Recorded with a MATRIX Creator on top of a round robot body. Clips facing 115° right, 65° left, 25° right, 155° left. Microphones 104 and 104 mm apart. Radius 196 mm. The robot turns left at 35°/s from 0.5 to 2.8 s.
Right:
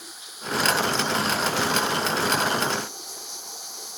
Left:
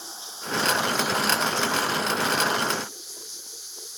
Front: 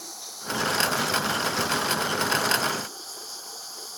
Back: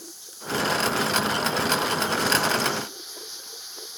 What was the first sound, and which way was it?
Running water, 5° left.